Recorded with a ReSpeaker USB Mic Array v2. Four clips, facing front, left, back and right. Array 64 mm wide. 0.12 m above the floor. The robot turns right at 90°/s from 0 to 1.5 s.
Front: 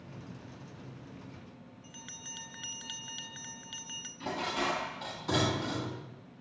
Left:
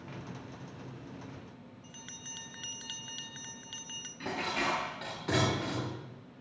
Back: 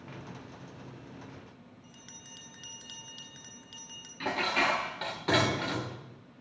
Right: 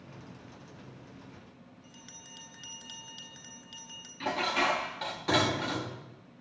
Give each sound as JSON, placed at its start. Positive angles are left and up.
{"t": 1.8, "sound": "a bell", "azimuth_deg": 45, "distance_m": 0.8}
{"t": 4.2, "sound": "dishes clattering", "azimuth_deg": -165, "distance_m": 1.4}